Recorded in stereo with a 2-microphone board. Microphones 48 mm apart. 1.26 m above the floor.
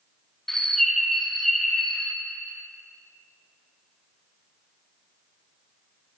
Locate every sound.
0.5 s a bird: 5° left (ahead or behind), 1.0 m